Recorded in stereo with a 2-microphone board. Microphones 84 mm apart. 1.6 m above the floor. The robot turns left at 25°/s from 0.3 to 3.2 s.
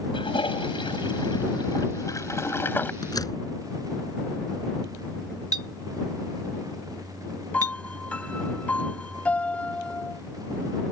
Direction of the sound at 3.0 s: 50° left (ahead or behind).